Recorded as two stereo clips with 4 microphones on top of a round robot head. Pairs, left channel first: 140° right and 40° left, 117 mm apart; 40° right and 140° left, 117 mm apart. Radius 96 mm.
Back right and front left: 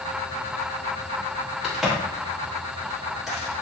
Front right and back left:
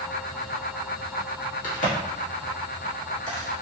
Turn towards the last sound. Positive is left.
turn(degrees=-45)